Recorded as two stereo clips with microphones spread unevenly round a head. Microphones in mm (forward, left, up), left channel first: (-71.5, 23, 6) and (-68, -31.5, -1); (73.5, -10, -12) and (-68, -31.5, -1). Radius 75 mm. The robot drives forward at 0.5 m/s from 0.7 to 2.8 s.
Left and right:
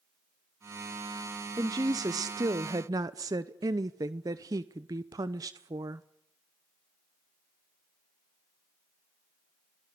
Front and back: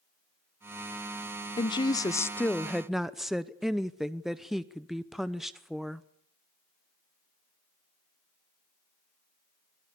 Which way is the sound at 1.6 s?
50° right.